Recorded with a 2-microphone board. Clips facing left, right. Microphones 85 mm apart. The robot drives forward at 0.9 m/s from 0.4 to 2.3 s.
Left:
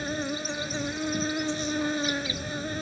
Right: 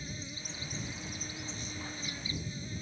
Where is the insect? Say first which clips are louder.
Left 14 dB; 80° left; by 2.8 s 90° left.